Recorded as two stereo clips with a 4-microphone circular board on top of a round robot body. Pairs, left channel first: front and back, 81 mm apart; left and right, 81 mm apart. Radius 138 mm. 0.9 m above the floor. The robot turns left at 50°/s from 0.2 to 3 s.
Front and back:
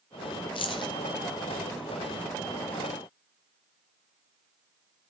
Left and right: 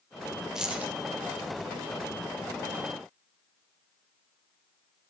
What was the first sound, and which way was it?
Keys jangling, 5° right.